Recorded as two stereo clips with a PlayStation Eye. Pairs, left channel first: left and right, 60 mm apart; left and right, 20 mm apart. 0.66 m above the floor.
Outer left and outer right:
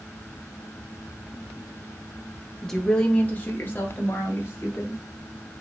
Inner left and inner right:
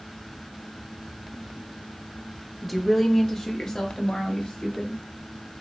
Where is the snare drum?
I don't hear a snare drum.